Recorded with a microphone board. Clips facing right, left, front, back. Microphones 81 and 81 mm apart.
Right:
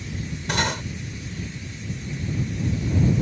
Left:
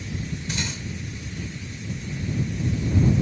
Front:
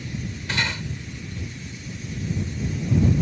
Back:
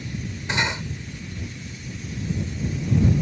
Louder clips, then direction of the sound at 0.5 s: Right 10 dB, back 2 dB; 110° right.